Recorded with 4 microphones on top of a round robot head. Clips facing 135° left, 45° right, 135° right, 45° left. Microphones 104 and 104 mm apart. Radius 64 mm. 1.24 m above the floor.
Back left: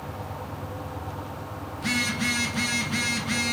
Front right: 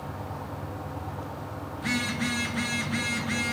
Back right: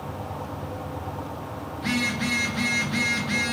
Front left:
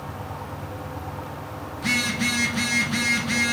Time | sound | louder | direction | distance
1.8 | a phone buzzing | back left 1 dB, even | 80° left | 0.6 m